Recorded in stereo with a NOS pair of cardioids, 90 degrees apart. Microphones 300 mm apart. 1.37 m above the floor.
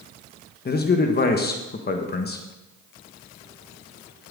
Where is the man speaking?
30° left, 1.3 m.